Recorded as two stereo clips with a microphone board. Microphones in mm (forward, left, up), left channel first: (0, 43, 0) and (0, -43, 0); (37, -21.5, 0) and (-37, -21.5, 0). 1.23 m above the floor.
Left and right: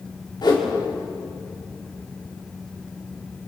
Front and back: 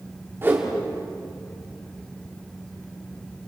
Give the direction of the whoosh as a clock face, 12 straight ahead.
8 o'clock.